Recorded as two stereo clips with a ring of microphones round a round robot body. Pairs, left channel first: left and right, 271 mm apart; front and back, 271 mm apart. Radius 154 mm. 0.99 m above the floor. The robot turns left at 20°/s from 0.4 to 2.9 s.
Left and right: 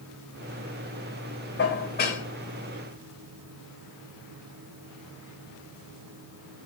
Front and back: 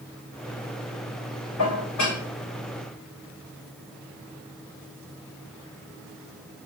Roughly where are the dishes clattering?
Ahead left.